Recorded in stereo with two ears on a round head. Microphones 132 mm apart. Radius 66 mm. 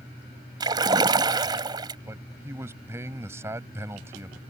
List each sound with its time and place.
0.6 s a splash: 30° right (ahead or behind)
2.1 s a man speaking: 15° right (ahead or behind)